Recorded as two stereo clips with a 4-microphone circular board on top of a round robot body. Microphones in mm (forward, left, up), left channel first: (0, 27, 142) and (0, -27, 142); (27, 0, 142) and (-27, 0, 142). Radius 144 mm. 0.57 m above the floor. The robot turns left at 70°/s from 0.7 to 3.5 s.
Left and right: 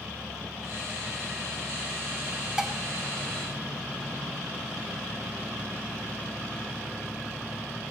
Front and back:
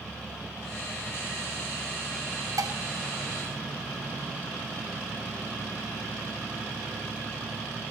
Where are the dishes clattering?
170° right, 1.4 m; by 2.8 s straight behind, 1.4 m.